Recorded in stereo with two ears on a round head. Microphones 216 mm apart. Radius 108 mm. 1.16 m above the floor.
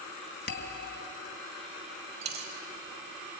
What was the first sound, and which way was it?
A bell, 40° left (ahead or behind).